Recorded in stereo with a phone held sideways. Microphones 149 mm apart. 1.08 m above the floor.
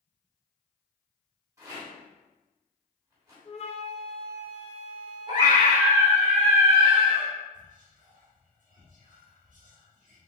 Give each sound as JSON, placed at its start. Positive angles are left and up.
{"t": 1.6, "sound": "a rattle", "side_deg": -25, "distance_m": 2.0}
{"t": 3.5, "sound": "a flute", "side_deg": 45, "distance_m": 0.8}
{"t": 5.3, "sound": "a scream", "side_deg": -30, "distance_m": 1.3}
{"t": 7.5, "sound": "whispering", "side_deg": -60, "distance_m": 1.9}